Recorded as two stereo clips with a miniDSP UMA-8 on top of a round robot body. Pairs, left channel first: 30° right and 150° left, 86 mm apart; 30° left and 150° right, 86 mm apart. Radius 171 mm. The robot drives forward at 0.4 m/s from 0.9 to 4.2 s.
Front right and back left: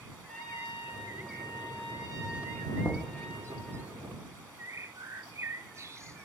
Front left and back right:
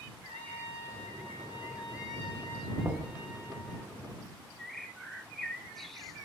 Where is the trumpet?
55° left, 4 m; by 3.8 s 75° left, 3.5 m.